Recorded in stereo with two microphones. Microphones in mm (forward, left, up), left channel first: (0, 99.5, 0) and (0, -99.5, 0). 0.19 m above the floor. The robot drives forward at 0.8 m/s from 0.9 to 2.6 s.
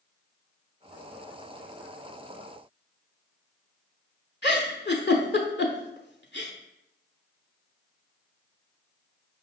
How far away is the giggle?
About 0.6 m.